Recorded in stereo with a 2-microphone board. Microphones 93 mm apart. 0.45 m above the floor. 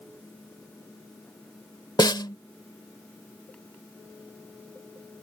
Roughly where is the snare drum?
Left.